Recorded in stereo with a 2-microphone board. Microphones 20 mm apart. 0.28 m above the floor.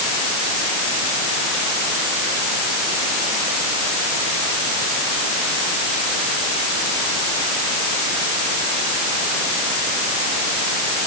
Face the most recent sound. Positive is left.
No sound to turn to.